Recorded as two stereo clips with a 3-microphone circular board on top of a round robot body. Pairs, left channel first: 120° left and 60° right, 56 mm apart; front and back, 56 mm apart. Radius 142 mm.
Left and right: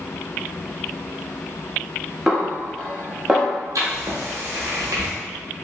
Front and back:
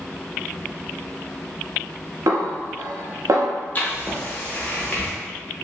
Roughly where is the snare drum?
Behind right.